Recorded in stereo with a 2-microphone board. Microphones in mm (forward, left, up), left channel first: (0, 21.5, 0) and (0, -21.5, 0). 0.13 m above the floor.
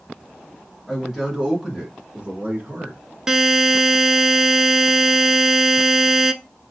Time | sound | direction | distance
0.9 | a man speaking | centre (ahead or behind) | 1.8 m
3.3 | a buzzer | 15° right (ahead or behind) | 0.5 m